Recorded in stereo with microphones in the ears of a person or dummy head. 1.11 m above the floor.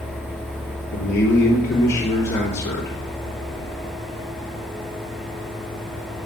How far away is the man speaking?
About 3 m.